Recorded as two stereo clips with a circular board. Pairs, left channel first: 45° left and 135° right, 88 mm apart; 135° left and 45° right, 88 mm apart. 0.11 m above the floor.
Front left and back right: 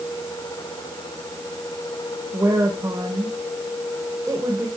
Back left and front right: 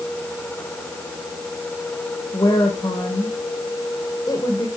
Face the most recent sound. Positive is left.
turn(degrees=175)